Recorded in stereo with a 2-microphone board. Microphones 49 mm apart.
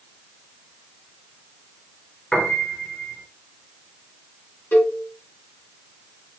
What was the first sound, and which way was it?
A piano, 15° left (ahead or behind).